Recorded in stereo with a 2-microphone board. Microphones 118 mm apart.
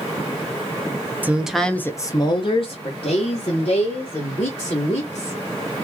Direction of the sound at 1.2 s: 15° right (ahead or behind).